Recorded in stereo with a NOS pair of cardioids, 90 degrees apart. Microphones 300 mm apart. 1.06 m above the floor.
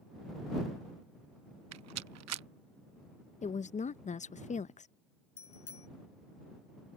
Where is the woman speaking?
25° left.